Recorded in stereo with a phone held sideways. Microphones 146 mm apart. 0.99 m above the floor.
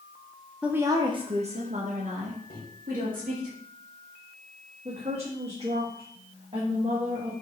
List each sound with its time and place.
0.6 s a woman speaking: 5° right (ahead or behind), 0.6 m; by 3.5 s 70° right (ahead or behind), 2 m
2.5 s a microwave: 80° left, 1.6 m
4.8 s a woman speaking: 40° right (ahead or behind), 1.3 m